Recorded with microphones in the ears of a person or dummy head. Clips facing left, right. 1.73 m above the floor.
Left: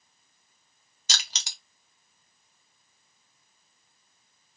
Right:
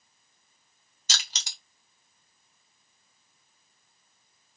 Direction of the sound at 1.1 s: 60° left (ahead or behind).